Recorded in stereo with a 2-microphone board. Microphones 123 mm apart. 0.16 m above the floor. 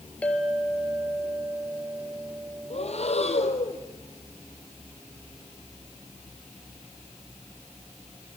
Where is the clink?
10° left (ahead or behind), 2.5 m.